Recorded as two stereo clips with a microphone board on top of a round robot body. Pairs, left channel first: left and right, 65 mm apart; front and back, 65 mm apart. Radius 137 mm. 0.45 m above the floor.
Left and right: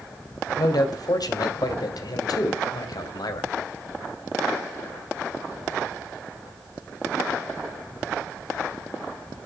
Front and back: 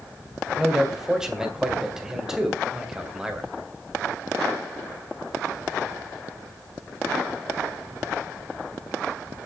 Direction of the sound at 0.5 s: 100° left.